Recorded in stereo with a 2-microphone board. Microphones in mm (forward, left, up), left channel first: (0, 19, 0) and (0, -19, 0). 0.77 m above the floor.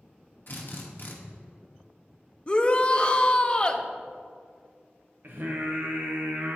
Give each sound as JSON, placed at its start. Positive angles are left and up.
{"t": 0.5, "sound": "a drill", "side_deg": 55, "distance_m": 1.1}
{"t": 2.5, "sound": "a shout", "side_deg": 25, "distance_m": 0.6}
{"t": 5.2, "sound": "singing", "side_deg": -65, "distance_m": 1.0}